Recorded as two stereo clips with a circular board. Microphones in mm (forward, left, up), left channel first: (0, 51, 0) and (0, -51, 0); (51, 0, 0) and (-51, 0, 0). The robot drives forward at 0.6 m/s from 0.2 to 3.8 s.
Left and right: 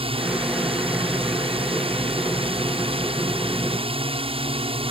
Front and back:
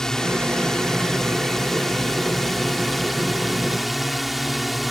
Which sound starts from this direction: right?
A drone, at 0.0 s.